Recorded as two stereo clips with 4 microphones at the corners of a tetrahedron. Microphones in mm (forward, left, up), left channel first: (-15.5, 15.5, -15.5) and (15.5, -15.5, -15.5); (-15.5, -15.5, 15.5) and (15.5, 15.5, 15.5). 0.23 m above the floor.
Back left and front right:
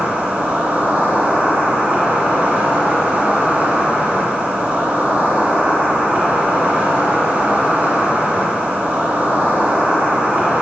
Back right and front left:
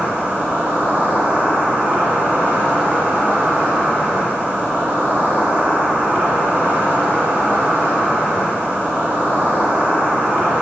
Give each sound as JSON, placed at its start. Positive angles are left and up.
{"t": 0.0, "sound": "an insect", "azimuth_deg": 10, "distance_m": 3.5}